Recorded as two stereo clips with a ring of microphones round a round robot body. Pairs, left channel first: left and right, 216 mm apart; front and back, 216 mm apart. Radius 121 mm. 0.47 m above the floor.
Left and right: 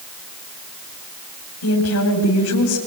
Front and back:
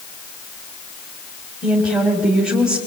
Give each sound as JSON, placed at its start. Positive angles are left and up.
{"t": 1.6, "sound": "a woman speaking", "azimuth_deg": 95, "distance_m": 3.5}